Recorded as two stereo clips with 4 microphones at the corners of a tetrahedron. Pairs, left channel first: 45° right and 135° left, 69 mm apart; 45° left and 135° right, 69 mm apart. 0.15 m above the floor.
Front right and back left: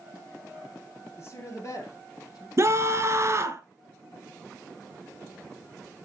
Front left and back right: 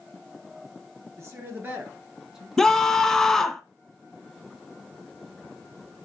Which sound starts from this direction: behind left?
A scream, at 2.6 s.